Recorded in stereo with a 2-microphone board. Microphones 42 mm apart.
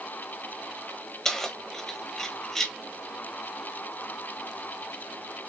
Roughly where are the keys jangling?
Centre.